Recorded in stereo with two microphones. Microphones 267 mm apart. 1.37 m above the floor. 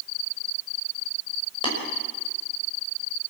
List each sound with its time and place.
1.6 s tapping: 20° left (ahead or behind), 6 m